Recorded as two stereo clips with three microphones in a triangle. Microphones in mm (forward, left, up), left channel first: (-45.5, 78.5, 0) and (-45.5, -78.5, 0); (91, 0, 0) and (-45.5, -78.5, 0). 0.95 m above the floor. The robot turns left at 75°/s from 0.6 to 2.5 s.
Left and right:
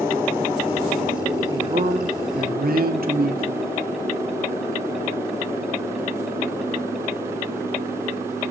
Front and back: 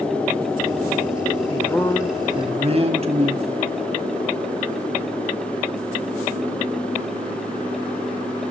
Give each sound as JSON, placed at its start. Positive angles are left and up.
{"t": 1.5, "sound": "a man speaking", "azimuth_deg": -25, "distance_m": 2.0}